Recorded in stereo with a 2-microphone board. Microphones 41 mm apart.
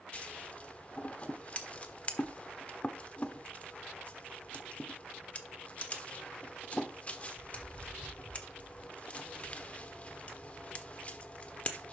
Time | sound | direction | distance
0.1 | scissors | 30° left (ahead or behind) | 1.1 m